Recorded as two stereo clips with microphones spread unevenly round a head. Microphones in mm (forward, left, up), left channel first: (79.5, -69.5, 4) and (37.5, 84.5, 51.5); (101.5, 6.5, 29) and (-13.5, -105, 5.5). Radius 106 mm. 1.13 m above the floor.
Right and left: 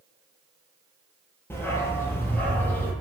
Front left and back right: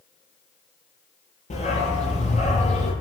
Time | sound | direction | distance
1.5 | a dog barking | 5° left | 9.5 m